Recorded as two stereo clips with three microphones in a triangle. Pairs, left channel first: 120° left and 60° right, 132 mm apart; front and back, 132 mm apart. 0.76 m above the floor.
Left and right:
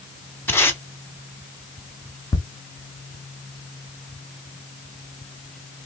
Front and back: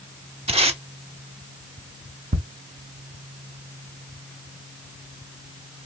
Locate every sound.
0.5 s tape being pulled: 175° right, 0.8 m
2.3 s ticking: 175° right, 0.9 m